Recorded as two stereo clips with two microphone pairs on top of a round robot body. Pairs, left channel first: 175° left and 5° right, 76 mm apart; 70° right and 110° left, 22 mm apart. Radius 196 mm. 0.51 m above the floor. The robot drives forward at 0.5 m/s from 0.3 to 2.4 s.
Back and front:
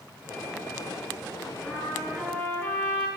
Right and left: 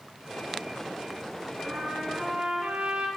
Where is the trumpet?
115° left, 7.5 m; by 3.1 s 120° left, 7.5 m.